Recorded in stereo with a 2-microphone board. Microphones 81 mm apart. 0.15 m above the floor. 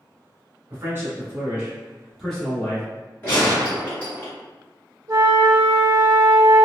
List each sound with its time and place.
0.7 s a man speaking: 30° right (ahead or behind), 1.2 m; by 2.9 s 15° left (ahead or behind), 1.2 m
3.2 s a gunshot: 25° left (ahead or behind), 1.5 m
5.1 s a flute: 40° right (ahead or behind), 0.8 m